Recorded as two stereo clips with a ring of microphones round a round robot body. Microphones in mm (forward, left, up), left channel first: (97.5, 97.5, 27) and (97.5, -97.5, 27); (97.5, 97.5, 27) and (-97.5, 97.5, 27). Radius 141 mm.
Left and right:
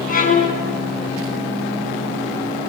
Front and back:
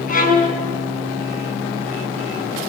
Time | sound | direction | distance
0.1 | a violin | 45° left | 5 m